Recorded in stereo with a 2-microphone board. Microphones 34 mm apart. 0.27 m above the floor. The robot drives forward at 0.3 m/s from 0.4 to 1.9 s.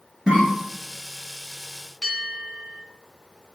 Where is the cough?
25° right (ahead or behind), 1.5 m.